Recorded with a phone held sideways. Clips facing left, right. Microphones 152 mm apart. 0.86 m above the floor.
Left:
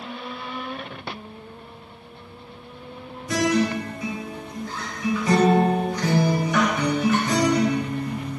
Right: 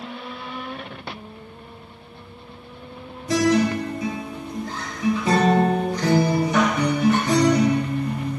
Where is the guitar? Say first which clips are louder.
Right 3 dB; 25° right (ahead or behind), 0.9 m.